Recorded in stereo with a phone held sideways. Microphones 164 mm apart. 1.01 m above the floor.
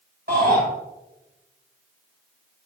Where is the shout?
75° right (ahead or behind), 5.5 m.